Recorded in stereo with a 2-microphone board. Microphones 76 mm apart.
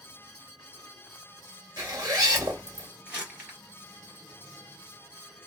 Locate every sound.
1.8 s a zipper: 50° right (ahead or behind), 1.7 m
3.1 s crumpling: 20° right (ahead or behind), 1.9 m